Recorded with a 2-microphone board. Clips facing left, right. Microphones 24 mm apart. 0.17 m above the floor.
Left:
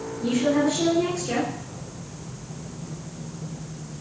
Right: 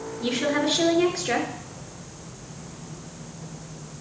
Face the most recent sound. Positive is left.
turn(degrees=-55)  # may be behind; listen again after turning